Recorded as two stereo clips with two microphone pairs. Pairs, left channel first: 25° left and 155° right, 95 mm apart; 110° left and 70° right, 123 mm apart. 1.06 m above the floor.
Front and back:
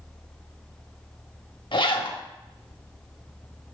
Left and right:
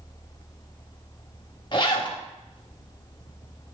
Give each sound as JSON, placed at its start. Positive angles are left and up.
{"t": 1.7, "sound": "a zipper", "azimuth_deg": 55, "distance_m": 1.0}